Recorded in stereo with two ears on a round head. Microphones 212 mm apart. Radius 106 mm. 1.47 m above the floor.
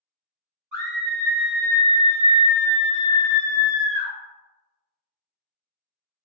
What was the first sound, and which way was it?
A scream, 5° right (ahead or behind).